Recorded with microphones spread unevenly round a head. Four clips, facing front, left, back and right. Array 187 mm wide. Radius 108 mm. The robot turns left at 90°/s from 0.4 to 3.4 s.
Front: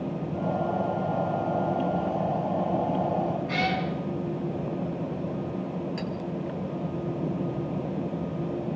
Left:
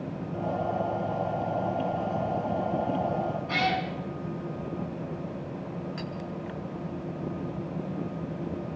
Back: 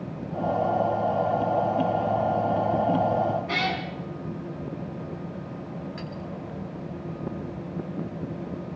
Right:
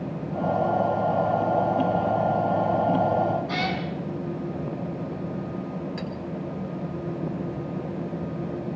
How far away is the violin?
No violin in this recording.